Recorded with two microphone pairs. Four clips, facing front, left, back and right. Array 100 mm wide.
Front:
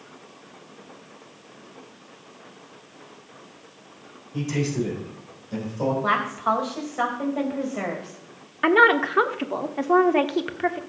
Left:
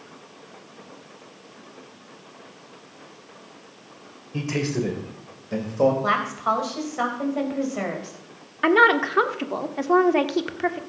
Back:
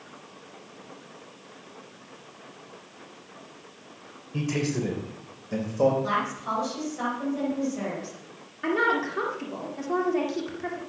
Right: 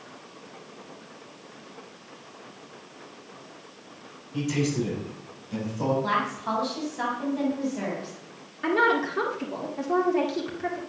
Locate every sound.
4.3 s a man speaking: 105° left, 3.5 m; by 5.9 s 115° left, 4 m
6.0 s a woman speaking: 50° left, 4 m
8.6 s a woman speaking: 45° left, 1.4 m